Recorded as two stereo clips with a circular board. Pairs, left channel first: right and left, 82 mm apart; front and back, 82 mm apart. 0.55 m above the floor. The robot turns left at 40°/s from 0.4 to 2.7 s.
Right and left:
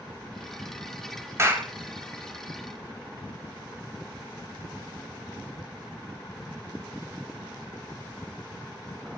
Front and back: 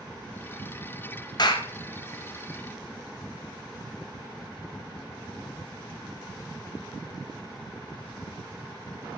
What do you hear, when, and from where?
1.4 s a clap: 35° left, 2 m; by 1.7 s 20° left, 2 m